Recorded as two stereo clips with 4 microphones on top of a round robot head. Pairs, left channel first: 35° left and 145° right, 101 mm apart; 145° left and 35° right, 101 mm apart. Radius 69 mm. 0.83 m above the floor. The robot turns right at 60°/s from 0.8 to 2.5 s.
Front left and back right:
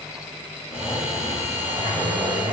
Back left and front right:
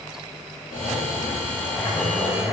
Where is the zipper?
125° left, 1.4 m; by 2.5 s 130° right, 1.4 m.